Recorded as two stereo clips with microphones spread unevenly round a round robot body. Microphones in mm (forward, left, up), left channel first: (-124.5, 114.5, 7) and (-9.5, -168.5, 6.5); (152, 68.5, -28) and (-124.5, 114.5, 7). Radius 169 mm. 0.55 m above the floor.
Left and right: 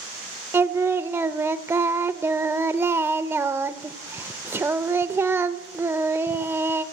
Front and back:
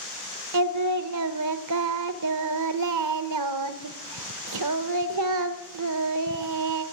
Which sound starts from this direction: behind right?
Singing, at 0.5 s.